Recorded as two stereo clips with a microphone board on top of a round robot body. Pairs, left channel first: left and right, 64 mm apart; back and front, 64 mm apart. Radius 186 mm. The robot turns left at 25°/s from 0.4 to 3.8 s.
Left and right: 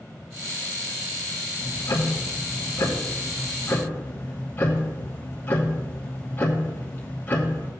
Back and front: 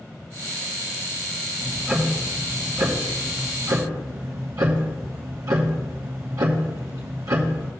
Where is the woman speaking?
No woman speaking in this recording.